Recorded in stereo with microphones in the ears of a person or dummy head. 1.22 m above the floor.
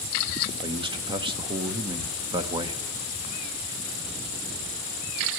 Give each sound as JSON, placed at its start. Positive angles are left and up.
{"t": 0.6, "sound": "a man speaking", "side_deg": -25, "distance_m": 0.9}